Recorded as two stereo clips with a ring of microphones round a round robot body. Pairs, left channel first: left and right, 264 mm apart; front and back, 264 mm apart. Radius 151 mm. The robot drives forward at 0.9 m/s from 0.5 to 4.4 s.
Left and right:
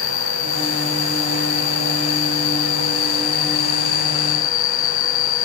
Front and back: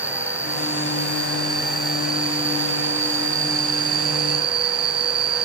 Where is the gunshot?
No gunshot in this recording.